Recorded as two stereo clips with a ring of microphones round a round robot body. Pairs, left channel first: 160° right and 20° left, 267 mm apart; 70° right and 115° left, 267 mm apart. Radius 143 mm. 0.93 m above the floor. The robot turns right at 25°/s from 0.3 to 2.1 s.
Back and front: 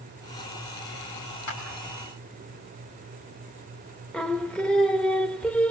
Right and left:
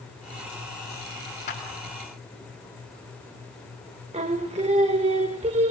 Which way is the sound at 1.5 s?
130° right.